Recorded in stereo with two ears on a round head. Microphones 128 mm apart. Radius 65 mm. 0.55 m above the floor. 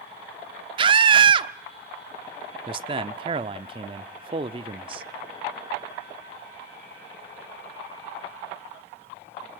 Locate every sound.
0.8 s a scream: 35° right (ahead or behind), 0.9 m
2.7 s a man speaking: 35° right (ahead or behind), 0.9 m